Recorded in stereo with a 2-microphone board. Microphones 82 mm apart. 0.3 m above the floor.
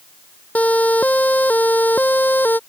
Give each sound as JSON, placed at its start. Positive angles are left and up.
{"t": 0.6, "sound": "a siren", "side_deg": 20}